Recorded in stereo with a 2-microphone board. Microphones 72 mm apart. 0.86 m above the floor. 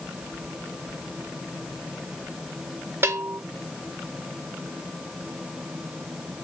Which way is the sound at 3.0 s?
35° right (ahead or behind).